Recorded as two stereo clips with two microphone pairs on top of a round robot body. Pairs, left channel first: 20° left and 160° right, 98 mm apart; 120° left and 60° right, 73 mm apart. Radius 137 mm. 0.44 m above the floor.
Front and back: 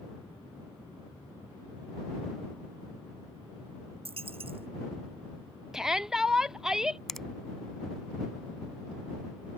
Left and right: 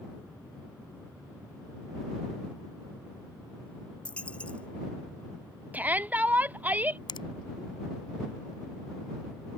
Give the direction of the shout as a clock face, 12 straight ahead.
3 o'clock.